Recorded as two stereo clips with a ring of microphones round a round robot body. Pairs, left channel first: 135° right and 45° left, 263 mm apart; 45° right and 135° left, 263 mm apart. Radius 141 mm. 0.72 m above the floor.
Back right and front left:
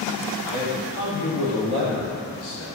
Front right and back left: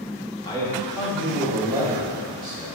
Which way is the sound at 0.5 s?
115° right.